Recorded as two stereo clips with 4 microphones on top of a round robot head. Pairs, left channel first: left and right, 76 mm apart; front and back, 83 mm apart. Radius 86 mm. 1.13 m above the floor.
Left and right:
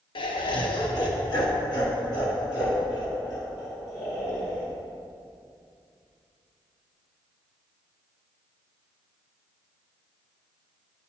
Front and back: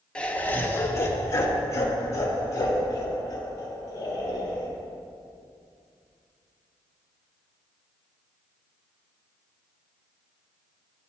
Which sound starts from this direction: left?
Laughter, at 0.1 s.